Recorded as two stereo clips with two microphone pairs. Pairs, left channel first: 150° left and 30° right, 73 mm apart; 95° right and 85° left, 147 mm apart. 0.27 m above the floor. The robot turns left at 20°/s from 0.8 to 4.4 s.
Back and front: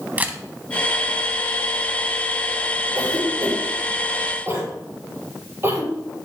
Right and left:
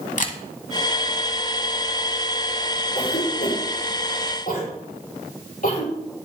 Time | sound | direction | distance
0.2 | a camera shutter | 95° right | 0.9 m
3.0 | a cough | 55° right | 4.5 m